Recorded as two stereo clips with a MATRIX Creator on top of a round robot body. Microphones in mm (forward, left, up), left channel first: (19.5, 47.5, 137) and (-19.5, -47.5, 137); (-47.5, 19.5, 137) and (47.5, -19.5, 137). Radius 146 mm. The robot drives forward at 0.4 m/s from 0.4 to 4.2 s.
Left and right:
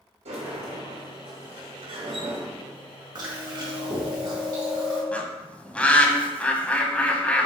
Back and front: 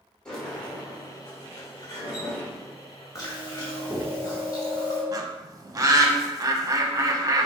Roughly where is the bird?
Ahead.